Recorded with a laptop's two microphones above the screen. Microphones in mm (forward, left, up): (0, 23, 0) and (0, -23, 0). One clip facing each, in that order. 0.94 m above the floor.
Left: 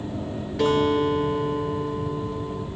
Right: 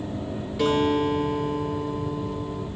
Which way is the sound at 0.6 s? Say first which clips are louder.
Left 1 dB; 85° left.